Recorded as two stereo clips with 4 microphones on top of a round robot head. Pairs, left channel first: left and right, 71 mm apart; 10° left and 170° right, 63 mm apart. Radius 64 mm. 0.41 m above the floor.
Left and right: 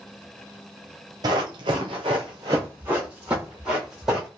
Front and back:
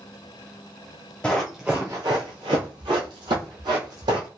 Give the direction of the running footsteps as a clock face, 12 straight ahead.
2 o'clock.